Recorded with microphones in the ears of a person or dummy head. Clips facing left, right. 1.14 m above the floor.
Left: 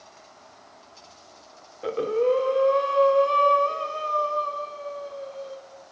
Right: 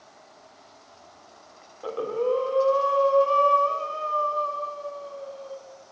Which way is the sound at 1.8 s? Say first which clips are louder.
Left 3 dB; 20° left (ahead or behind).